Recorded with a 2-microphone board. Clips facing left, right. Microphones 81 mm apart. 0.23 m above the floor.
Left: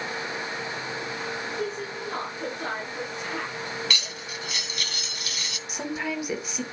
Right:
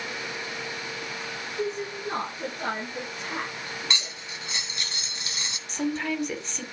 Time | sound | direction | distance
1.6 | a woman speaking | 70° right (ahead or behind) | 4 m
3.9 | cutlery clinking | 25° right (ahead or behind) | 1.0 m
5.7 | a woman speaking | 10° left (ahead or behind) | 1.1 m